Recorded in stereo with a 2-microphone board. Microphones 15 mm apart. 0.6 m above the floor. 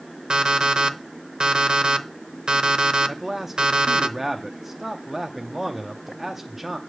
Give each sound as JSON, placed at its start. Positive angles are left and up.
{"t": 0.3, "sound": "an alarm clock", "side_deg": -75, "distance_m": 0.7}
{"t": 3.1, "sound": "a man speaking", "side_deg": -20, "distance_m": 0.6}